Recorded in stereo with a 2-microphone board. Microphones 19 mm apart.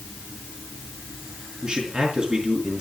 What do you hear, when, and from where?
1.6 s a man speaking: 45° right (ahead or behind), 5 m